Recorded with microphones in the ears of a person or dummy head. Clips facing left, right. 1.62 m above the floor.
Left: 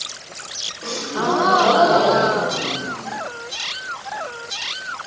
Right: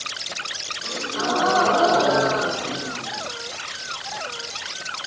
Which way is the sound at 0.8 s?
70° left (ahead or behind).